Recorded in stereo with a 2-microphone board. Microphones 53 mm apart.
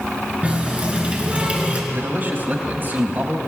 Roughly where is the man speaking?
Right.